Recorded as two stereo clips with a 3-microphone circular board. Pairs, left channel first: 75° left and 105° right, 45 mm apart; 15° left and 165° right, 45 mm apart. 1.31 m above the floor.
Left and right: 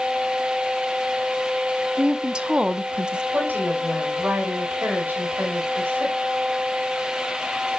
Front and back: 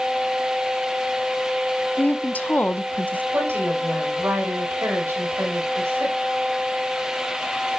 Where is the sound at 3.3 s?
150° right, 5.5 m.